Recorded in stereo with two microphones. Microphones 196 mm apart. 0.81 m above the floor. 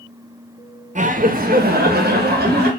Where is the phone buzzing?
No phone buzzing in this recording.